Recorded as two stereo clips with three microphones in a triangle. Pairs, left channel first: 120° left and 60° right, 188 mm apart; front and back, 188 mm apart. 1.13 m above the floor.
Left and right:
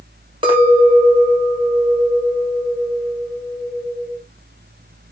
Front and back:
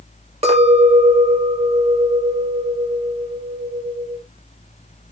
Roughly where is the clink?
Behind right.